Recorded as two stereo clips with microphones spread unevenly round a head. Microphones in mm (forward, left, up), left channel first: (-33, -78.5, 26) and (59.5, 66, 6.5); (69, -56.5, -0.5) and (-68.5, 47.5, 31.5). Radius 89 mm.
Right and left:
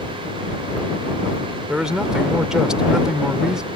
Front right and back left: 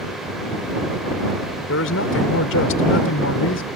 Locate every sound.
1.7 s a man speaking: 30° right